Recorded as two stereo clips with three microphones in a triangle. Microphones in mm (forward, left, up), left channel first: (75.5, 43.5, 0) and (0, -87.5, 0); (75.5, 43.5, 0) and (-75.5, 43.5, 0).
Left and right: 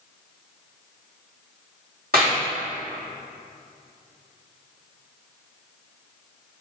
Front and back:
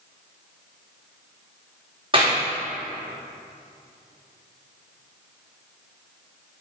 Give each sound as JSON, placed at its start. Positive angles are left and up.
{"t": 2.1, "sound": "a clap", "azimuth_deg": -125, "distance_m": 2.5}